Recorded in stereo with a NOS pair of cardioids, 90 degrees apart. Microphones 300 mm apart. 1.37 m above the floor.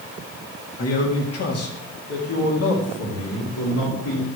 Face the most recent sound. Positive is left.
turn(degrees=55)